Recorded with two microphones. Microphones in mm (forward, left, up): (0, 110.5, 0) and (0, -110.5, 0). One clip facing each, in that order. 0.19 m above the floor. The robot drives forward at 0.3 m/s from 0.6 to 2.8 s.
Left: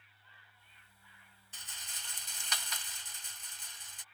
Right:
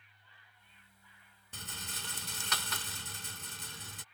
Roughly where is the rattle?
Right.